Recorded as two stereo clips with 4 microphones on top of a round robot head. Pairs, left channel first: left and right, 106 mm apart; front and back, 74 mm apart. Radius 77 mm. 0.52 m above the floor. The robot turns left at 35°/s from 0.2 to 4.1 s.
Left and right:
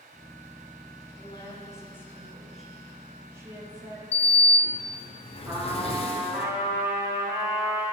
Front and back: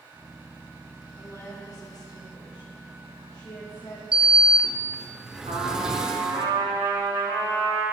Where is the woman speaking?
50° left, 4 m; by 4.0 s 50° right, 4 m.